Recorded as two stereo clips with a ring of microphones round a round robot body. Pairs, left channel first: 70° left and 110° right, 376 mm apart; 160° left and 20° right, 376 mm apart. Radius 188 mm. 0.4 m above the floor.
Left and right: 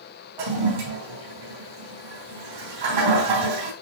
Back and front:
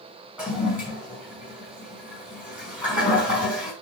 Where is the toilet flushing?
110° right, 4 m.